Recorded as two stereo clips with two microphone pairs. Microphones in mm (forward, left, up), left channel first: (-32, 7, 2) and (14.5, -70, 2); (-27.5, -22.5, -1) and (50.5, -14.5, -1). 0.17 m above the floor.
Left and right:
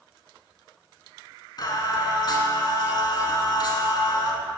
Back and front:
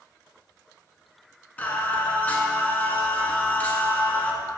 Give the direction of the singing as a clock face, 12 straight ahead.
8 o'clock.